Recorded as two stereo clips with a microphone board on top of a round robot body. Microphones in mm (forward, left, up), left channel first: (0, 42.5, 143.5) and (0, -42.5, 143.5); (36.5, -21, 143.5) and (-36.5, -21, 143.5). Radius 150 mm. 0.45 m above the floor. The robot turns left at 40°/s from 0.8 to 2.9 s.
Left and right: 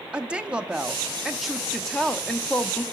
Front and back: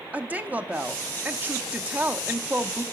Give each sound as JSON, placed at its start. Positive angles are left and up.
{"t": 0.1, "sound": "a woman speaking", "azimuth_deg": -150, "distance_m": 0.9}